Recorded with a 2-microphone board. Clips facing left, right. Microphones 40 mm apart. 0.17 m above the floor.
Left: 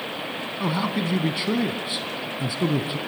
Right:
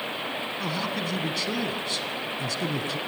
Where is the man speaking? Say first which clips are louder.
Left 7 dB; 20° left (ahead or behind), 1.1 m.